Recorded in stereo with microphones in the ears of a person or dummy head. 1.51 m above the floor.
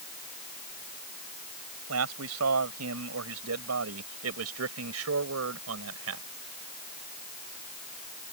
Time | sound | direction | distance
1.9 | a man speaking | 85° right | ?